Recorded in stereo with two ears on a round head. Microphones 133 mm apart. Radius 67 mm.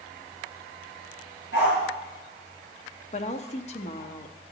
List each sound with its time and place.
1.5 s a dog barking: 85° left, 5 m
3.1 s a woman speaking: 45° left (ahead or behind), 1.0 m